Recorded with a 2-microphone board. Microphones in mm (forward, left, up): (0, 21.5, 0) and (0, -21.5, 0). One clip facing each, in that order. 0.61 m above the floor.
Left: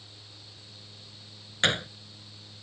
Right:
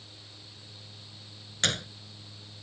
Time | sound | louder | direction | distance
1.6 | a gunshot | left 4 dB | 25° left (ahead or behind) | ?